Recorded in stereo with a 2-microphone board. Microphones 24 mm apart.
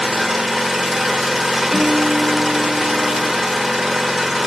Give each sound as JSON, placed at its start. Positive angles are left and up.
{"t": 0.0, "sound": "an engine running", "side_deg": -5, "distance_m": 0.9}
{"t": 1.7, "sound": "a guitar", "side_deg": 10, "distance_m": 3.0}